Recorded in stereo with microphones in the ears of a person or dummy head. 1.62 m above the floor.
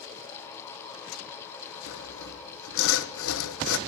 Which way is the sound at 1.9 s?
80° left.